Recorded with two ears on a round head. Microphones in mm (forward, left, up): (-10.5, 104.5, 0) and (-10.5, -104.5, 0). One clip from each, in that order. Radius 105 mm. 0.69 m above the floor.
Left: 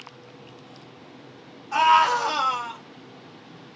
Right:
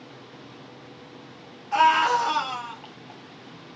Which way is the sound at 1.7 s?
10° left (ahead or behind).